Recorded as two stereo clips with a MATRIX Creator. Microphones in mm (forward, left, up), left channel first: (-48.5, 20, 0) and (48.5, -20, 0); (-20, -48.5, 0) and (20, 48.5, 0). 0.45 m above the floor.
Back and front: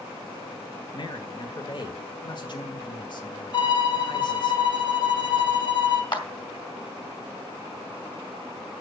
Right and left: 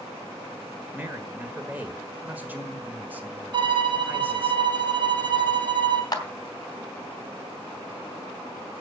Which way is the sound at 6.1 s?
165° right.